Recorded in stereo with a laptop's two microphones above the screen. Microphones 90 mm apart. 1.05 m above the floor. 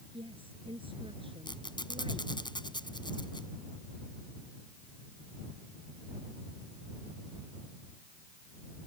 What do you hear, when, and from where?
0.1 s a woman speaking: 75° right (ahead or behind)
1.4 s a squeak: 55° left (ahead or behind)